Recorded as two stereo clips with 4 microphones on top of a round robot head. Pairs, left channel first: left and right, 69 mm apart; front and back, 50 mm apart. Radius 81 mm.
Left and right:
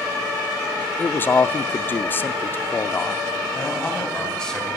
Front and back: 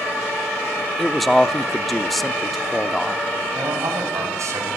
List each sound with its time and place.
1.0 s a man speaking: 85° left, 0.8 m
3.5 s a man speaking: 170° left, 4.5 m